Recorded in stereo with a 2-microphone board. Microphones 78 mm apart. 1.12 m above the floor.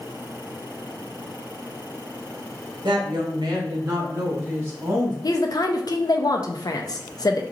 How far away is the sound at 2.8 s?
About 1.3 m.